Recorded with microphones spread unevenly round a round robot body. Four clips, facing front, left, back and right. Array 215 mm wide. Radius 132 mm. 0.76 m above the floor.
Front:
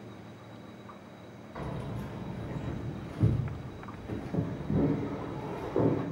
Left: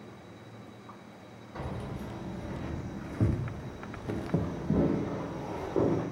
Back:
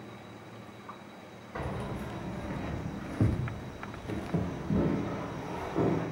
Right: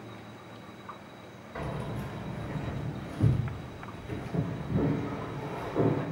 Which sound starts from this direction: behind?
Keys jangling, at 1.6 s.